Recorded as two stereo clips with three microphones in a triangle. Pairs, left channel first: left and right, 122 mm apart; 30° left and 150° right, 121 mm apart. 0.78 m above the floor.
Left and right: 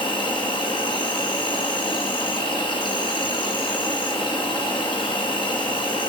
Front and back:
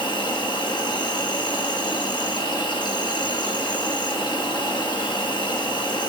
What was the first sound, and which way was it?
An insect, 65° left.